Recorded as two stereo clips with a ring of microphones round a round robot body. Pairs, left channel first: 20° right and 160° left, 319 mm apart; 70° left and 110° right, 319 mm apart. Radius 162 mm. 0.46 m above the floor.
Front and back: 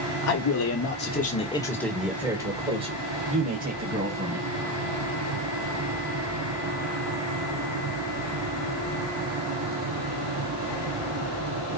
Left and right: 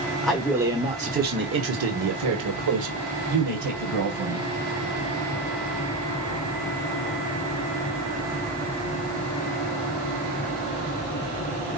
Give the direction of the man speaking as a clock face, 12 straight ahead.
1 o'clock.